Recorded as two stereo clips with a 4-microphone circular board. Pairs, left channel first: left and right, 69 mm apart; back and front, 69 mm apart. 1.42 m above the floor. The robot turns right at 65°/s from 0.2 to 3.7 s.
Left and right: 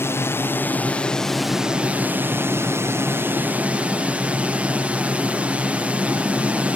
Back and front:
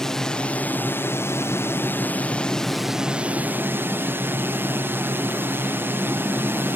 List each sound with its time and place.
0.0 s a drone: 100° left; by 6.8 s 30° right